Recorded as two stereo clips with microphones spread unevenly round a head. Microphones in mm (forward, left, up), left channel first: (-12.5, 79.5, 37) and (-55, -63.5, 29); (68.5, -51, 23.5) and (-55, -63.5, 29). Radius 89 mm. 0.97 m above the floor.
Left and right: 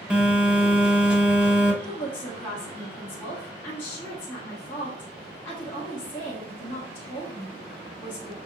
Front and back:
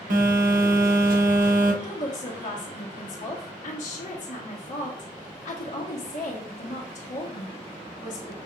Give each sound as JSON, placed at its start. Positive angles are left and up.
{"t": 0.1, "sound": "a phone buzzing", "azimuth_deg": 170, "distance_m": 1.1}
{"t": 1.8, "sound": "a woman speaking", "azimuth_deg": -5, "distance_m": 1.3}